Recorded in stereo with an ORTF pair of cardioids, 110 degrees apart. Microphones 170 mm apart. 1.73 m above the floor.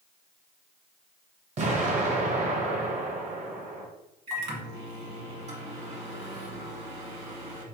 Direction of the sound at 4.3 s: 40° right.